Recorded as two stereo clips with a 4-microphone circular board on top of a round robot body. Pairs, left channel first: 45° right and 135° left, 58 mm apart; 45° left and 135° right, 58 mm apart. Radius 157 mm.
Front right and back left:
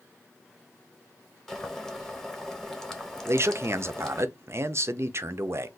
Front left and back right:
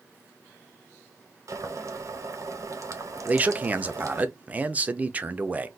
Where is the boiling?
130° right, 0.9 m.